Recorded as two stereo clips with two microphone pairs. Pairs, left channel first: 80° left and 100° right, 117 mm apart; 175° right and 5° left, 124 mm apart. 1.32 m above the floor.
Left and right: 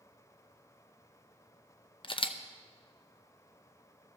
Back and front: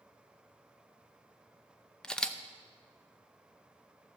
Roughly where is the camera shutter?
Left.